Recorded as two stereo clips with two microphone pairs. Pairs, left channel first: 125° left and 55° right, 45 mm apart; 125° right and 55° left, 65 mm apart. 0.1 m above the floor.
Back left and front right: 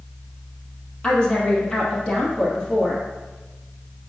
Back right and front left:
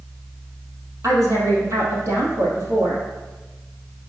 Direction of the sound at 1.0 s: 55° left.